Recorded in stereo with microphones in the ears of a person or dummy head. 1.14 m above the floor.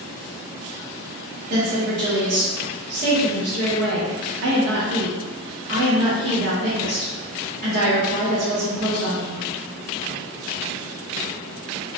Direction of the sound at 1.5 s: 50° right (ahead or behind).